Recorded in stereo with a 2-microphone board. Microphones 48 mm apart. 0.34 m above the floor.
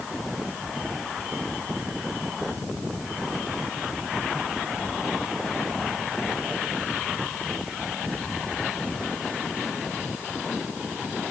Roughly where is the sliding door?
I don't hear a sliding door.